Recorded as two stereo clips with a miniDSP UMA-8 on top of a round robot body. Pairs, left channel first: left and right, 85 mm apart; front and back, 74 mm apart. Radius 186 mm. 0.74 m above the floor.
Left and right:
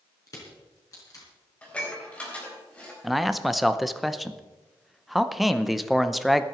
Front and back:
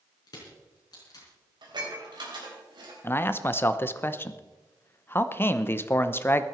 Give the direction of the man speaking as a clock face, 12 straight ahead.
12 o'clock.